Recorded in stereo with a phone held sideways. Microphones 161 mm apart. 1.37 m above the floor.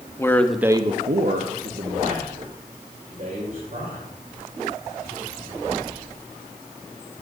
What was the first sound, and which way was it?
A man speaking, 20° left (ahead or behind).